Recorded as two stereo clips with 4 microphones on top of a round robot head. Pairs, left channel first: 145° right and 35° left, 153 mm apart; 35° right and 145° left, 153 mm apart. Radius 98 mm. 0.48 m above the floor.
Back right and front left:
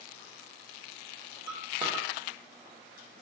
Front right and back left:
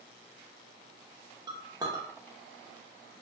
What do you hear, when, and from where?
1.5 s a clink: 85° left, 1.0 m